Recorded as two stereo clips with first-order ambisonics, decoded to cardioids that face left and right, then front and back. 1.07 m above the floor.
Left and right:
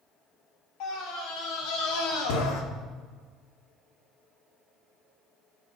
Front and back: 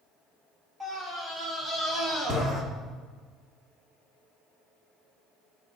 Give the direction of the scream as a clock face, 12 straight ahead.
9 o'clock.